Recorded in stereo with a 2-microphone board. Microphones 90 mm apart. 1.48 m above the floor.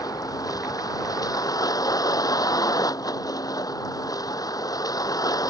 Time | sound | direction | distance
0.0 | a vehicle | 45° left (ahead or behind) | ?